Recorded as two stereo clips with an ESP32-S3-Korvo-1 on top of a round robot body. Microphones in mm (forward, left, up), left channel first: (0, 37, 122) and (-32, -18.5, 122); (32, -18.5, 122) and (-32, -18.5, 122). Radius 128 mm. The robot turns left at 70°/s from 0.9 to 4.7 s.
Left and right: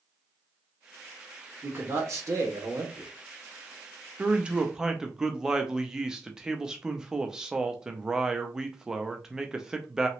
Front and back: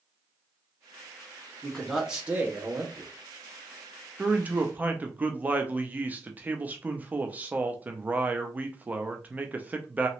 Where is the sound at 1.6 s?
70° right, 1.6 m; by 3.1 s 170° right, 1.6 m.